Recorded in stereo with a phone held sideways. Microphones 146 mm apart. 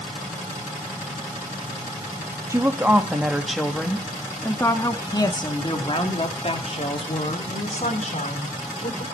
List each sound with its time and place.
2.5 s a woman speaking: 20° right (ahead or behind), 2 m; by 9.0 s 55° left (ahead or behind), 4.5 m